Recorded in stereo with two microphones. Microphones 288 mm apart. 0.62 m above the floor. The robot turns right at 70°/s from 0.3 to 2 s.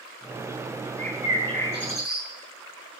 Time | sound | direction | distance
1.0 | a bird | 160° left | 5 m